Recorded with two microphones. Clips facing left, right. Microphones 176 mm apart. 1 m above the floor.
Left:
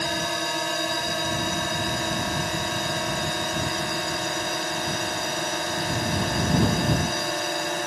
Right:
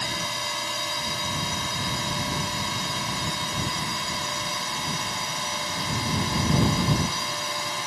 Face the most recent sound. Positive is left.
turn(degrees=60)  # may be behind; listen again after turning